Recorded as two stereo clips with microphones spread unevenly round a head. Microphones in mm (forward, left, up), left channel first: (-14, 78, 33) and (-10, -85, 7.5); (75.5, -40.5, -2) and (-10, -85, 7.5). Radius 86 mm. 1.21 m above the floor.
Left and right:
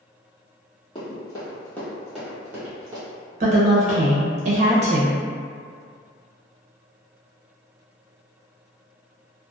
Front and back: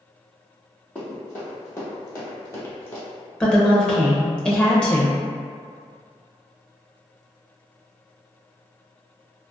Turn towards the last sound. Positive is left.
turn(degrees=-50)